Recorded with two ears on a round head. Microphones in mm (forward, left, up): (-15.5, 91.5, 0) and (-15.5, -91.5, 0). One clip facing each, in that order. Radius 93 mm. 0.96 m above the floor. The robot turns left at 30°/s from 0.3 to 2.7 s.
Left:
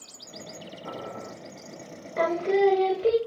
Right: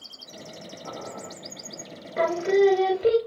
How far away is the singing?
About 0.8 m.